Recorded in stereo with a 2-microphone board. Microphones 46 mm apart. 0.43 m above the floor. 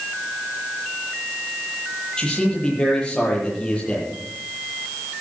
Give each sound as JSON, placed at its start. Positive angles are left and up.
{"t": 2.2, "sound": "a man speaking", "side_deg": 15, "distance_m": 10.0}